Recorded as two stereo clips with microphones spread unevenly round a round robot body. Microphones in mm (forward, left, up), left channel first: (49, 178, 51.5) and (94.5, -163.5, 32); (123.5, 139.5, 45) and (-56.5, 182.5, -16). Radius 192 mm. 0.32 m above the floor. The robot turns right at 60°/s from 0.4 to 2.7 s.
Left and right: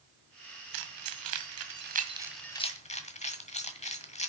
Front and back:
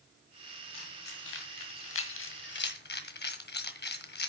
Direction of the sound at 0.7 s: 90° right.